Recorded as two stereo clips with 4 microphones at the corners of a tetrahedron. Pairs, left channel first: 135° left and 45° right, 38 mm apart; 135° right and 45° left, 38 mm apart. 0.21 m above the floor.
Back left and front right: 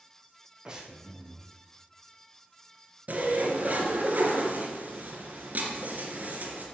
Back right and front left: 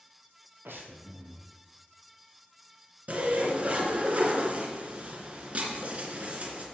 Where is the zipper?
5° right, 3 m.